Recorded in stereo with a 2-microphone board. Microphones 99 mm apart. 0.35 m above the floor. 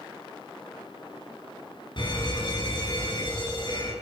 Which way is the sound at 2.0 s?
50° left (ahead or behind).